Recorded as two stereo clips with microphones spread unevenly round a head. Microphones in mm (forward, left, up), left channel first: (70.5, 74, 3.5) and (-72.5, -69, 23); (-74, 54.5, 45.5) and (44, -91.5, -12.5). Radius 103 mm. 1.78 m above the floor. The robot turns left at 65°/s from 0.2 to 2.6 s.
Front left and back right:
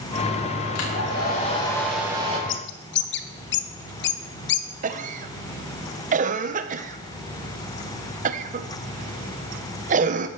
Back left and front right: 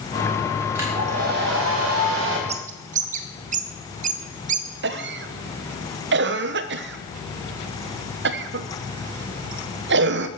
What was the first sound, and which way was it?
A hair dryer, 30° left.